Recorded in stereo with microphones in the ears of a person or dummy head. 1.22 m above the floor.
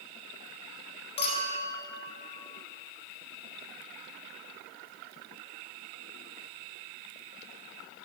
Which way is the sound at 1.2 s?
30° left (ahead or behind).